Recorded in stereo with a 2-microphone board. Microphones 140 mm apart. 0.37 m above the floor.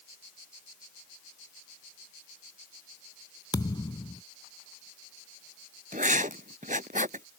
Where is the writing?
70° right (ahead or behind).